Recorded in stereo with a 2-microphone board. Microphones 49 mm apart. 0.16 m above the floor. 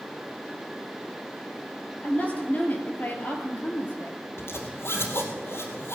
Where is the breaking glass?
No breaking glass in this recording.